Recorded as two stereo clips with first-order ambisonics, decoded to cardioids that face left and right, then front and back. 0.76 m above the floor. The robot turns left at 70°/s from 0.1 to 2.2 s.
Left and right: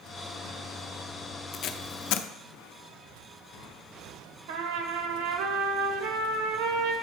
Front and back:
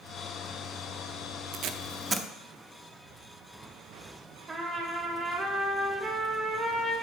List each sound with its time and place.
1.5 s tape being pulled: 145° left, 0.5 m; by 2.3 s 100° left, 0.5 m
4.5 s a trumpet: 105° right, 1.3 m